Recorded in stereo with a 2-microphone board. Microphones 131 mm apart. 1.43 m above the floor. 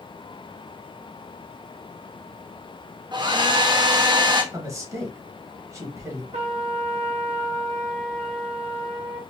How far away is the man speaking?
About 1.5 m.